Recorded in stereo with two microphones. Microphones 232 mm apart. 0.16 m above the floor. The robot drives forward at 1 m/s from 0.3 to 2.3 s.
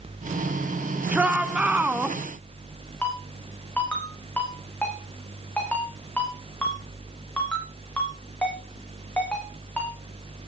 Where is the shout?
5° right (ahead or behind), 2 m.